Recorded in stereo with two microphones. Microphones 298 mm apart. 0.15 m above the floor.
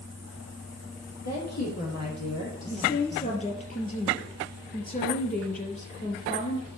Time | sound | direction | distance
1.2 | a woman speaking | 70° left (ahead or behind) | 4.5 m
2.7 | a woman speaking | 30° left (ahead or behind) | 3 m